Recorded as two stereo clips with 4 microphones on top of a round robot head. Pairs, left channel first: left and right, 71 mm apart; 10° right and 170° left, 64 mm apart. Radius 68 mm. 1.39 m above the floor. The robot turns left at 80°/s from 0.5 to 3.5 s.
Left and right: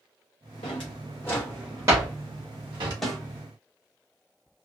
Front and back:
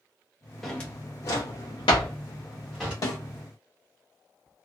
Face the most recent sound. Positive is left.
turn(degrees=-35)